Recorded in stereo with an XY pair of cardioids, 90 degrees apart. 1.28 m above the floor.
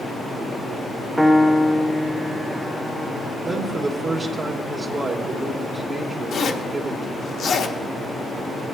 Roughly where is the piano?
Ahead.